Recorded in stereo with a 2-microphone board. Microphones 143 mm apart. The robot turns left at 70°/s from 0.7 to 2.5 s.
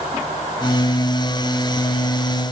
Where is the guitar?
No guitar in this recording.